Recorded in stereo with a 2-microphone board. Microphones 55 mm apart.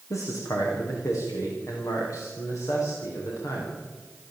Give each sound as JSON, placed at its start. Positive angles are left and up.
{"t": 0.1, "sound": "a man speaking", "side_deg": 70, "distance_m": 7.5}